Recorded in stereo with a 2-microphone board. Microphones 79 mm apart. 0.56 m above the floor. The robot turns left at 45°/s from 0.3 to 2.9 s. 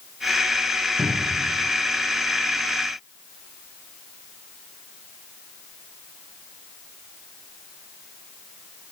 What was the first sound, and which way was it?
A cupboard door, centre (ahead or behind).